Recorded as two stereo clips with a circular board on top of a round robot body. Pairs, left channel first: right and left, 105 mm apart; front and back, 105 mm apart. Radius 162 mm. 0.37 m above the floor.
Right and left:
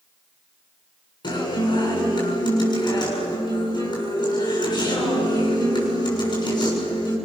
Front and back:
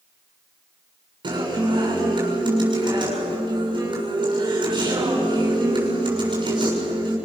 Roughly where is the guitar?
Behind right.